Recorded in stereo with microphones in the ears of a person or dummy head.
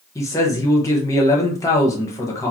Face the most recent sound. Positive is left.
turn(degrees=15)  # may be behind; listen again after turning